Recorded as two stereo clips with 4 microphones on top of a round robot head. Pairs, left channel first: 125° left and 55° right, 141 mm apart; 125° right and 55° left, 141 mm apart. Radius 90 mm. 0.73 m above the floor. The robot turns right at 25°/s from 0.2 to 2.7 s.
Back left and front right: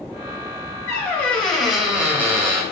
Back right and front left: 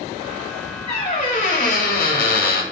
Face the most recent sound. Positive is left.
turn(degrees=-120)